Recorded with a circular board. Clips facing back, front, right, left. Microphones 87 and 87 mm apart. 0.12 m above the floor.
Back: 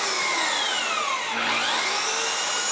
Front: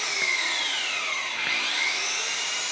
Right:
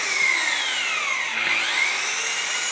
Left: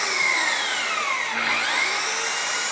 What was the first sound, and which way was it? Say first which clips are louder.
An engine running: back 5 dB, left 1 dB; 165° left.